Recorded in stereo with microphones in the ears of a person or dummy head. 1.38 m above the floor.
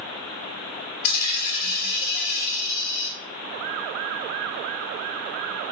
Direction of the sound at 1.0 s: 45° left (ahead or behind).